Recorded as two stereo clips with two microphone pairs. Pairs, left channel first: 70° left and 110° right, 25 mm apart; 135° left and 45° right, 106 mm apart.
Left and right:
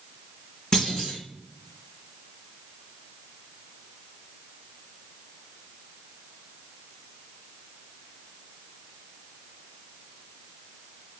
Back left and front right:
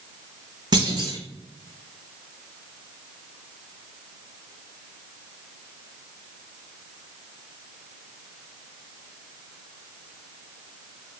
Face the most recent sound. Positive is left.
turn(degrees=0)